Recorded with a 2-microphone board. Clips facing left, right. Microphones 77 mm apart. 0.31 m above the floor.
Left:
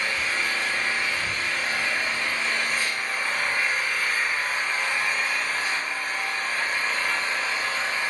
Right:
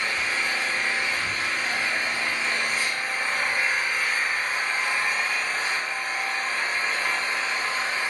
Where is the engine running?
30° right (ahead or behind), 1.4 m.